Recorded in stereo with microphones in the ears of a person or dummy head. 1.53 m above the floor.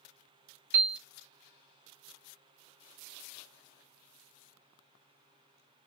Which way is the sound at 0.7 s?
55° right (ahead or behind).